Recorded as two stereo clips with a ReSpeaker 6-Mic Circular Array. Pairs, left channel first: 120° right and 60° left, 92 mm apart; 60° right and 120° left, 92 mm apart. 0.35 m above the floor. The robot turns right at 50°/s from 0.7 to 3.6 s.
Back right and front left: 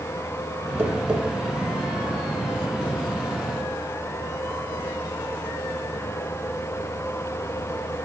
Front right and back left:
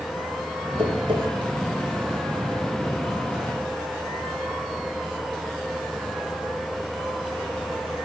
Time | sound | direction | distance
0.8 | tapping | 125° left | 1.7 m